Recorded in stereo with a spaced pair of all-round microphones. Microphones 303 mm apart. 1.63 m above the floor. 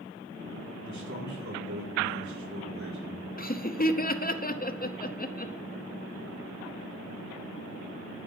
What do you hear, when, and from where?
0.8 s a man speaking: 70° right (ahead or behind), 4.5 m
3.4 s laughter: 30° left (ahead or behind), 0.7 m